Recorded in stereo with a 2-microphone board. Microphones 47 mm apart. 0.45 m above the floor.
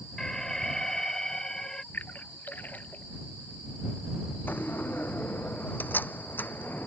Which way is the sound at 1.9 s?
40° left (ahead or behind).